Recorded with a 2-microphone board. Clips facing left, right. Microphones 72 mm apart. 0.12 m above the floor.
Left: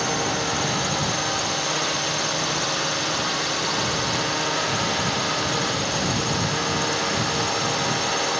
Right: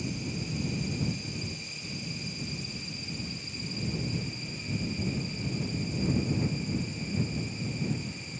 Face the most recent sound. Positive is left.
turn(degrees=85)